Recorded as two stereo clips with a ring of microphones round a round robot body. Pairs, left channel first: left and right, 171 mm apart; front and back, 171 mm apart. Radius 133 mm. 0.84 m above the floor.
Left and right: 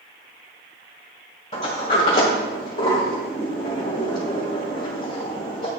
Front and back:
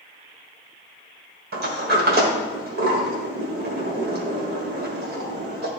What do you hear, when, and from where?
1.5 s a sliding door: 155° left, 1.4 m